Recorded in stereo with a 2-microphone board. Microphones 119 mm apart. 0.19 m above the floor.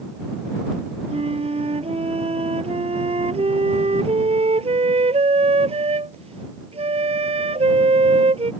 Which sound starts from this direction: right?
A flute, at 1.1 s.